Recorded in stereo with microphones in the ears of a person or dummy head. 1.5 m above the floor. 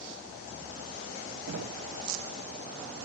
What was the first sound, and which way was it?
Knocking, 80° right.